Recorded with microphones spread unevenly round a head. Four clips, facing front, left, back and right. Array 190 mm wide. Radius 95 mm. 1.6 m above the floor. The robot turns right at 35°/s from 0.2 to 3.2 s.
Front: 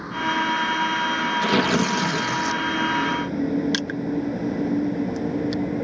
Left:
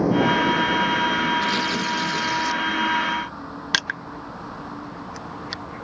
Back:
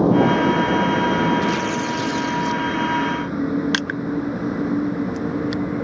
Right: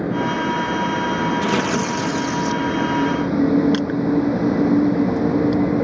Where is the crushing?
125° left.